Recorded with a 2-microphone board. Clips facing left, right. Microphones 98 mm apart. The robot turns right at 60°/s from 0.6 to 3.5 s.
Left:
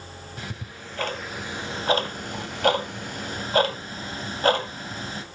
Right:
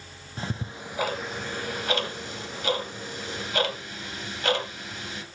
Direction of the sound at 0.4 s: 30° right (ahead or behind).